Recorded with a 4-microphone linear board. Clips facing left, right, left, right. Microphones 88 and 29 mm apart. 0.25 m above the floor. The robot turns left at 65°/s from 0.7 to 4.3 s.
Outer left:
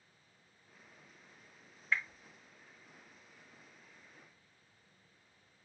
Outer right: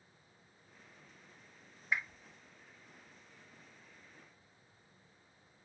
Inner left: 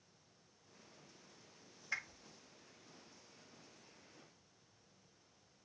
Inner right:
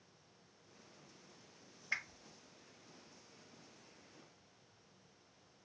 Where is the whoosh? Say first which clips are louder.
Outer left 1 dB, inner right 2 dB; 20° right (ahead or behind), 1.0 m; by 2.2 s centre (ahead or behind), 1.0 m.